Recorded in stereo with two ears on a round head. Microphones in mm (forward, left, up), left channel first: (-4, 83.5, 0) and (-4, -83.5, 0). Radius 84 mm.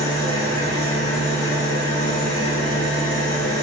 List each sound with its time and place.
0.0 s an engine running: 65° left (ahead or behind), 1.7 m